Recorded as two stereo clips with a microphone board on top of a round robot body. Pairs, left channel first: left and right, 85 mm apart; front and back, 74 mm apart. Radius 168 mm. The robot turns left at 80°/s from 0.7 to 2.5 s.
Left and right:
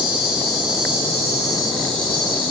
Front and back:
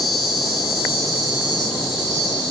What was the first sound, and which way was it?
An insect, 115° right.